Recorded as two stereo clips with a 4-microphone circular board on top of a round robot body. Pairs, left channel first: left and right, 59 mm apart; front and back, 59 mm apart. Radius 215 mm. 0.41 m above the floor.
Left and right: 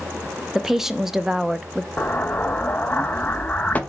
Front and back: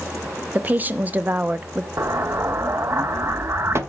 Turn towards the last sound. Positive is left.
turn(degrees=150)